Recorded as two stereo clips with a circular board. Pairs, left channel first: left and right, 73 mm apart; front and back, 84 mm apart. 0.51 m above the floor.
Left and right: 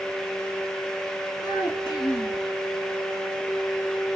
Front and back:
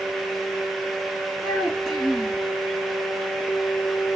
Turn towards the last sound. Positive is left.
turn(degrees=95)